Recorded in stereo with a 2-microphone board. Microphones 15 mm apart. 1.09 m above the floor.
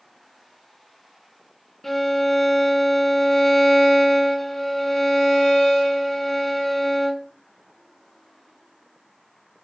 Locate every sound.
1.8 s a violin: 20° left (ahead or behind), 0.7 m